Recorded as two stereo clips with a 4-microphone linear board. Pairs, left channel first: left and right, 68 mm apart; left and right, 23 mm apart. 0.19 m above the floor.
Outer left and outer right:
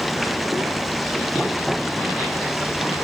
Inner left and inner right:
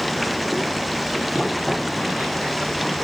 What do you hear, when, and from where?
0.0 s running water: centre (ahead or behind)